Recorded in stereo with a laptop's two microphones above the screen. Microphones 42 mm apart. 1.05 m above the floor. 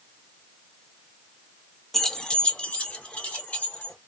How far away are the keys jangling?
About 0.5 m.